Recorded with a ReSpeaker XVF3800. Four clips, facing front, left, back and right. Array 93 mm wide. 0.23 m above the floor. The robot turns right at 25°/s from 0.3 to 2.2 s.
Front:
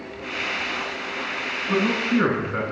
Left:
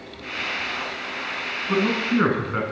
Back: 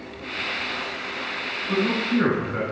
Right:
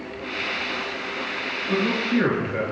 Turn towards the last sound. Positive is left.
turn(degrees=80)